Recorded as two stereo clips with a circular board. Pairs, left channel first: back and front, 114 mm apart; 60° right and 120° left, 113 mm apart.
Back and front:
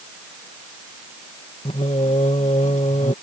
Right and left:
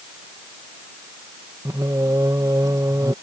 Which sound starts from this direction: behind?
Singing, at 1.6 s.